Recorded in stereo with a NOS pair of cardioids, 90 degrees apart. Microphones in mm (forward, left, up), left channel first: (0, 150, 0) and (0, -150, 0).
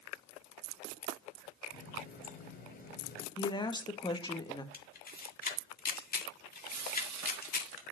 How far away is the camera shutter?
About 1.8 m.